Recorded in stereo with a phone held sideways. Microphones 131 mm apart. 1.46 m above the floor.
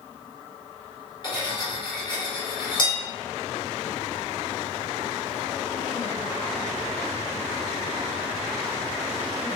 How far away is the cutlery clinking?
About 1.1 m.